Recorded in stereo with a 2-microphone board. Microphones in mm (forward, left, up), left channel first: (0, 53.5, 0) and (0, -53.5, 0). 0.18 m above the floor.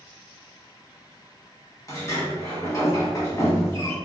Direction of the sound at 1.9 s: 30° left (ahead or behind).